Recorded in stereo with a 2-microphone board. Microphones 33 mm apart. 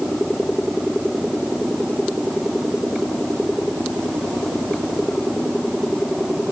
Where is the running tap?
No running tap in this recording.